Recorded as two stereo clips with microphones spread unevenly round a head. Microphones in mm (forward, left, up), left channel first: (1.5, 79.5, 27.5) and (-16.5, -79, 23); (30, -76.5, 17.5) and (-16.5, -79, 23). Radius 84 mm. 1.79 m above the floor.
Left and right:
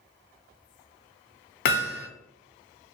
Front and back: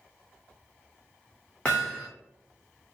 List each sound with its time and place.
1.6 s hammering: 85° left, 0.6 m